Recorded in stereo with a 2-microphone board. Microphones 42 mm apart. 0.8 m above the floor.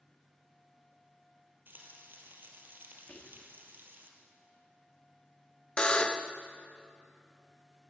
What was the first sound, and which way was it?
Frying, 50° right (ahead or behind).